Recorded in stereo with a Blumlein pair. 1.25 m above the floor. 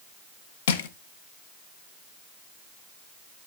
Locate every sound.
0.7 s crushing: 55° left, 0.8 m